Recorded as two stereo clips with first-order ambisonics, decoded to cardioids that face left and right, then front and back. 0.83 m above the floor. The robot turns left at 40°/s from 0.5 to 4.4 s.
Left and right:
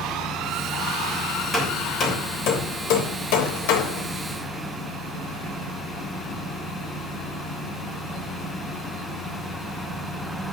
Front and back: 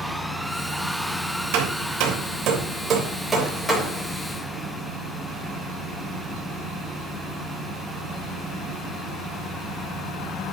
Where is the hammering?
170° left, 3 m; by 4.0 s 70° left, 3 m.